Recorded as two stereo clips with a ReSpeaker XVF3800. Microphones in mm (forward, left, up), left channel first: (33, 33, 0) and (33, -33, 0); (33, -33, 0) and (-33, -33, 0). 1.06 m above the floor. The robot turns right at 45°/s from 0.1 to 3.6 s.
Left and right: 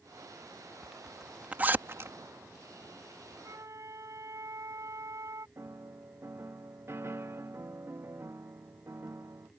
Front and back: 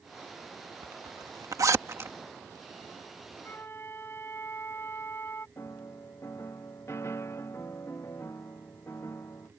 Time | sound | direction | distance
0.8 | a zipper | 170° left | ?
3.4 | a flute | 60° right | ?
5.6 | a piano | 45° right | ?